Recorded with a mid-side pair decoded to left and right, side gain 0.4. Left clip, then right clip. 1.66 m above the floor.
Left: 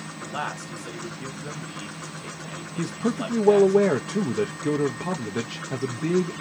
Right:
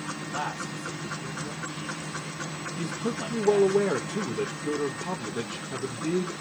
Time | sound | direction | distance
0.2 | a man speaking | 45° left | 1.2 m
2.8 | a man speaking | 70° left | 0.5 m